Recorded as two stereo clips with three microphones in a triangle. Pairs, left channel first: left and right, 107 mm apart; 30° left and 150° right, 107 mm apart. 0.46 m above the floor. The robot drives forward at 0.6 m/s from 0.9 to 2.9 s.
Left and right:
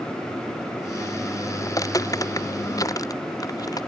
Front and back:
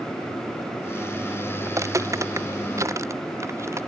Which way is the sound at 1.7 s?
150° left.